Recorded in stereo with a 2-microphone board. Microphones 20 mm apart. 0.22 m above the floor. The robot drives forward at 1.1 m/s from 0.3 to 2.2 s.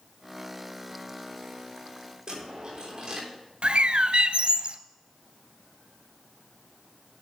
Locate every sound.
2.3 s a dropped coin: 40° right (ahead or behind), 8.5 m
3.6 s a bird: 70° right (ahead or behind), 0.7 m